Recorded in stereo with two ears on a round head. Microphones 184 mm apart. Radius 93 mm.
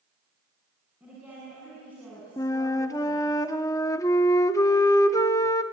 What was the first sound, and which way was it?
A woman speaking, 5° right (ahead or behind).